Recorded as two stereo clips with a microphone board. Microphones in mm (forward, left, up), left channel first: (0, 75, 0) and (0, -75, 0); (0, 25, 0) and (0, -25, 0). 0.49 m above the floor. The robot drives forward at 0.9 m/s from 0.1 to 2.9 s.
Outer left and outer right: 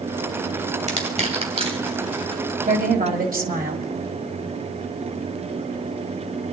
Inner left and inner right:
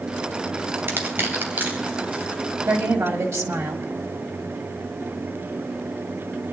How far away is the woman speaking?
About 2 m.